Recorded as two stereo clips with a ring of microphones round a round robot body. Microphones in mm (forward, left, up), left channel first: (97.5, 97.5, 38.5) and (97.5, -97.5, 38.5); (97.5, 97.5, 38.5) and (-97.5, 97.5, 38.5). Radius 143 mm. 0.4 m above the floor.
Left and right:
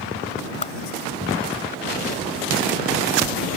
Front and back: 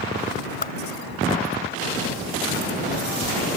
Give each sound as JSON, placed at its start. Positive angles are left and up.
{"t": 0.6, "sound": "a whoosh", "azimuth_deg": 40}